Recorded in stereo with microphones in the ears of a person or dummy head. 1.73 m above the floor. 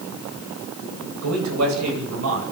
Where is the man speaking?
85° right, 9.5 m; by 2.4 s 80° right, 9 m.